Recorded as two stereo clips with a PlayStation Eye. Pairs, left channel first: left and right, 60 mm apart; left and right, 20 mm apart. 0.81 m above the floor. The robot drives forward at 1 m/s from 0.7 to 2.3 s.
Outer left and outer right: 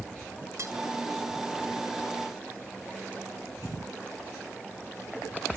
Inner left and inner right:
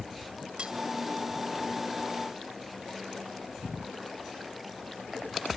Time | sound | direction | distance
0.6 | cutlery clinking | 50° right (ahead or behind) | 2 m